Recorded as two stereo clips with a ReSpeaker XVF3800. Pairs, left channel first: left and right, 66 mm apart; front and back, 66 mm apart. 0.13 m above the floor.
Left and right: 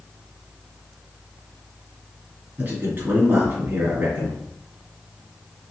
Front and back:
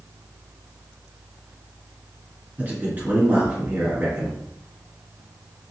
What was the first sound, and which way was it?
A man speaking, 130° right.